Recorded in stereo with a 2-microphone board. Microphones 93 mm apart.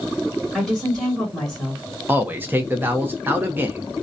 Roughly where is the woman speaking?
Centre.